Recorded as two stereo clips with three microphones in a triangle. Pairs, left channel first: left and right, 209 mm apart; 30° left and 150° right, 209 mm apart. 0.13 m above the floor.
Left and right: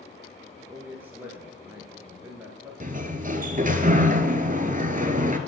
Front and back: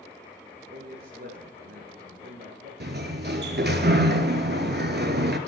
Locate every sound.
0.7 s a man speaking: 170° right, 1.9 m
2.8 s a sliding door: 130° right, 1.0 m